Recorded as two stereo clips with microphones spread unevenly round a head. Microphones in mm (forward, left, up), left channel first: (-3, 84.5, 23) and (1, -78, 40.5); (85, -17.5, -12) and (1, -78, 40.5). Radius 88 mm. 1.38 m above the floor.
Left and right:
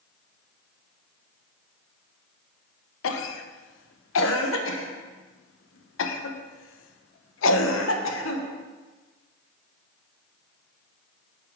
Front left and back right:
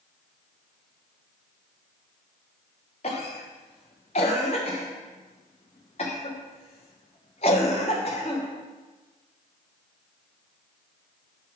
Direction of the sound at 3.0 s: 95° left.